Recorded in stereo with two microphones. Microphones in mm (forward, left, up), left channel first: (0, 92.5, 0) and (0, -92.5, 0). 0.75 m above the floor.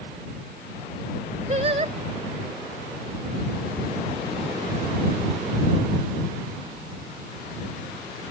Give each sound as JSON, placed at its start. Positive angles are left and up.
{"t": 1.5, "sound": "singing", "side_deg": -35}